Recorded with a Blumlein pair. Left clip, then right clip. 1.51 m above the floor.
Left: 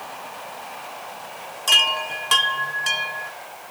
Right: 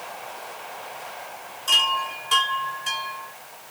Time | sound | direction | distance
1.7 | a chime | 35° left | 0.8 m